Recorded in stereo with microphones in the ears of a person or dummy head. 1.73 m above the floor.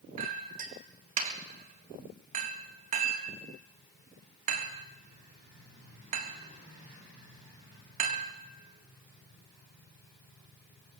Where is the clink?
40° right (ahead or behind), 1.7 m.